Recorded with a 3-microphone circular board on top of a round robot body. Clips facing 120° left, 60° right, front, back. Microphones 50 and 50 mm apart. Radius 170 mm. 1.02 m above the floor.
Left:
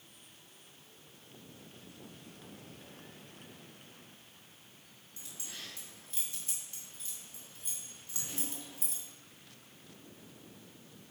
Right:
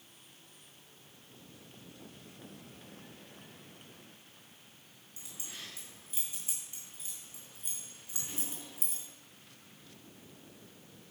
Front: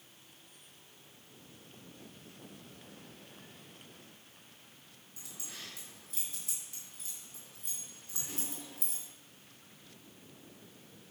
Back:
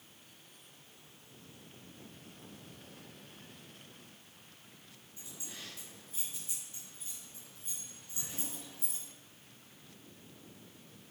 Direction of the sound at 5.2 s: 15° left.